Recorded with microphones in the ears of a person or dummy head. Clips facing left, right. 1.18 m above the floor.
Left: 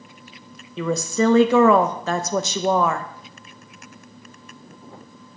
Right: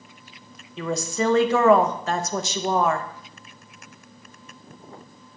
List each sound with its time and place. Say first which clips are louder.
0.8 s a woman speaking: left 4 dB; 70° left (ahead or behind), 0.6 m